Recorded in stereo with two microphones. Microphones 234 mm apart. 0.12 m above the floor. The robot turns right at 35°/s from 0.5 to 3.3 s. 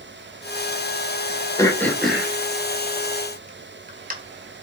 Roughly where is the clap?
I don't hear a clap.